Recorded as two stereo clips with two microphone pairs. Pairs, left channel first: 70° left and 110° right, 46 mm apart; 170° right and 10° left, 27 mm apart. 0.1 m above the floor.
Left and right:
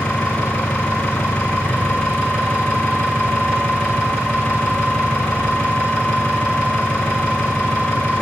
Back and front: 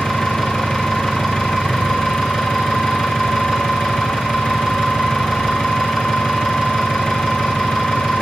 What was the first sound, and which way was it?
An engine running, 140° left.